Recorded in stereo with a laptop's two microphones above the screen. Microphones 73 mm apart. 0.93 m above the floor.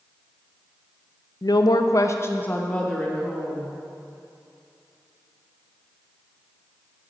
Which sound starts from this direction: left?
A woman speaking, at 1.4 s.